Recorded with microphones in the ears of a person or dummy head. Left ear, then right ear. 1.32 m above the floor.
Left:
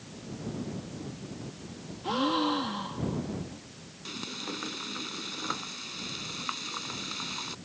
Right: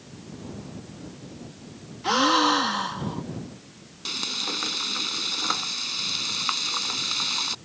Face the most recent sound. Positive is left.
turn(degrees=-30)  # may be behind; listen again after turning